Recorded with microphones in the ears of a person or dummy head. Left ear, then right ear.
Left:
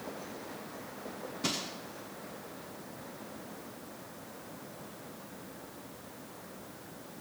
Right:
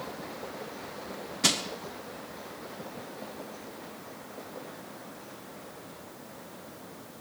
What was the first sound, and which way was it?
Crushing, 50° right (ahead or behind).